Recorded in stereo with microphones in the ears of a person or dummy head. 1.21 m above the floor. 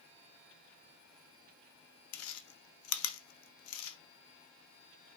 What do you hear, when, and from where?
2.1 s chewing: 85° left, 0.6 m